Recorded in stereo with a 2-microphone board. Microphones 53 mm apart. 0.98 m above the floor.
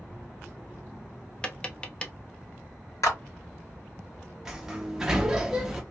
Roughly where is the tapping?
Centre.